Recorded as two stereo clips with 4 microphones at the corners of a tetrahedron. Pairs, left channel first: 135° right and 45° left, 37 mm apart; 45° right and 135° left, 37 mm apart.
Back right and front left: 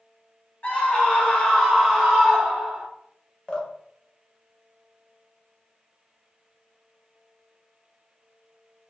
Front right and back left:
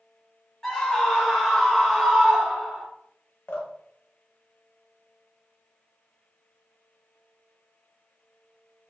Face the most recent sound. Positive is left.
turn(degrees=-65)